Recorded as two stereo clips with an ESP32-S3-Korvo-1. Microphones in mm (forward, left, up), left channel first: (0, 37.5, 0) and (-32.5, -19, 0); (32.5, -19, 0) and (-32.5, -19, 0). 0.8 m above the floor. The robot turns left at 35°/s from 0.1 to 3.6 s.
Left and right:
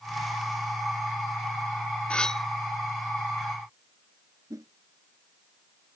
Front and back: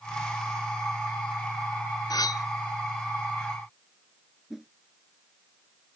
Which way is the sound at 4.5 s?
95° right.